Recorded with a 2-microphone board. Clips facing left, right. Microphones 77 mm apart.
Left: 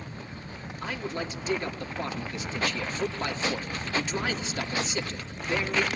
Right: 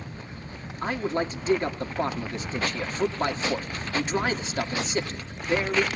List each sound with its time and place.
0.8 s a man speaking: 35° right (ahead or behind), 2.5 m